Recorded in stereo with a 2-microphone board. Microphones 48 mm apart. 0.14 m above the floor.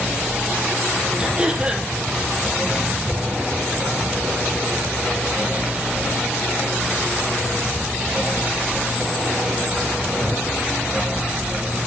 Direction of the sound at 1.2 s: 20° right (ahead or behind).